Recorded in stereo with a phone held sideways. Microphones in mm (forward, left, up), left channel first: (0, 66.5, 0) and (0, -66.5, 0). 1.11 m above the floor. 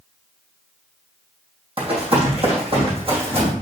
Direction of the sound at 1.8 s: 45° right (ahead or behind).